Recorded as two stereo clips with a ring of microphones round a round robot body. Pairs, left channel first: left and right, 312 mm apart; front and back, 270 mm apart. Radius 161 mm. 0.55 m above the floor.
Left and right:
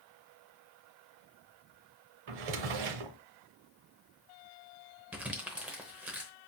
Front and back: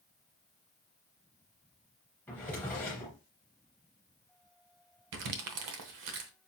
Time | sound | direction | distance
2.3 | a drawer | 85° right | 0.6 m
5.1 | crumpling | 175° right | 0.8 m